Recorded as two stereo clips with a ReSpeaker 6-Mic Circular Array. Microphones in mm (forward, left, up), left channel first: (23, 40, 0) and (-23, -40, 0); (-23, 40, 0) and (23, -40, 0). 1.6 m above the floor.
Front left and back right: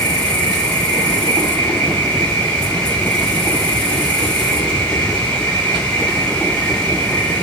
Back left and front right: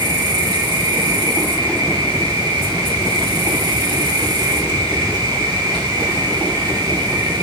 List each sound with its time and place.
0.0 s an insect: 20° right, 7 m